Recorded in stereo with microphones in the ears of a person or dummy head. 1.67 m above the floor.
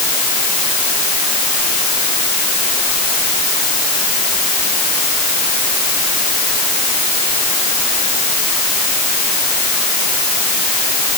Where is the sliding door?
I don't hear a sliding door.